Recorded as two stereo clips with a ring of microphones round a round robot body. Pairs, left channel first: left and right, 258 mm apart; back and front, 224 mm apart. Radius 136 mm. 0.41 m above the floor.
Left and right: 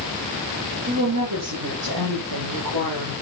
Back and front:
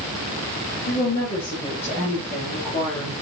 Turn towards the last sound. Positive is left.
turn(degrees=-105)